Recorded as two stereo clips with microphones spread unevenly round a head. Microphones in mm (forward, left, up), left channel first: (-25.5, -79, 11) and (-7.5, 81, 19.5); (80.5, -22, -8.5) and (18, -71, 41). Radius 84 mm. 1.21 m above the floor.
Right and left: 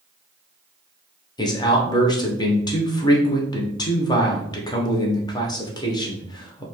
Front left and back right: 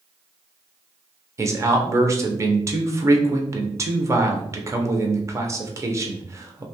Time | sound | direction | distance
1.4 | a man speaking | 65° right | 0.7 m